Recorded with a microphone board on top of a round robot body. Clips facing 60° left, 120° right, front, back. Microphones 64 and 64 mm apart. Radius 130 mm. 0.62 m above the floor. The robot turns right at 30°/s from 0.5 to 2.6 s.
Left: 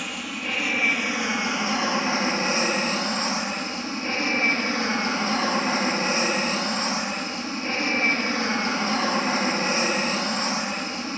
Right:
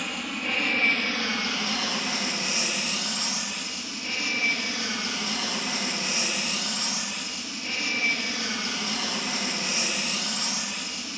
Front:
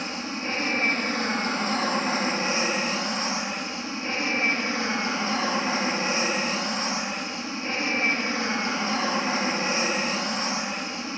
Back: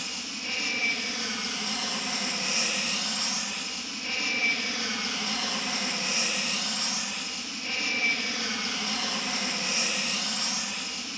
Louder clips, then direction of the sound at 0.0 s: Even, front 7 dB; 30° right.